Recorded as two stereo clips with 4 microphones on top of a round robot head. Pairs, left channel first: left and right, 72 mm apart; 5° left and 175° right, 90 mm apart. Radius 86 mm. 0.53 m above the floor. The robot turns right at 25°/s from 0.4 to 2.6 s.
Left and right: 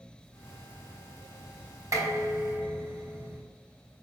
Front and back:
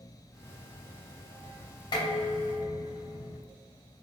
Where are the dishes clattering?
45° right, 3 m; by 3.4 s 25° right, 3 m.